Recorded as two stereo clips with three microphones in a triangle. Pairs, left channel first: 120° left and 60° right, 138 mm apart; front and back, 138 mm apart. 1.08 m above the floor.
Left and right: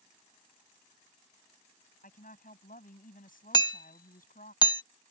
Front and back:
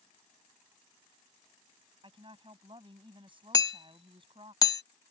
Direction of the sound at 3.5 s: 60° left.